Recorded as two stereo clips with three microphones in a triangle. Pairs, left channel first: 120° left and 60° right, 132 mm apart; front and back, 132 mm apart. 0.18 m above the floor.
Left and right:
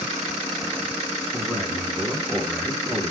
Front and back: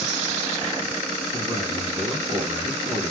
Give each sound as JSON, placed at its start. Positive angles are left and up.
{"t": 1.3, "sound": "a man speaking", "azimuth_deg": -150, "distance_m": 1.5}